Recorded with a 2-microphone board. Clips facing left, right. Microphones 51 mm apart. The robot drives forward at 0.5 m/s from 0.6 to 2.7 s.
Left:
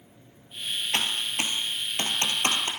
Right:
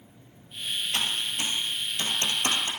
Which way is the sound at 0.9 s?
60° left (ahead or behind).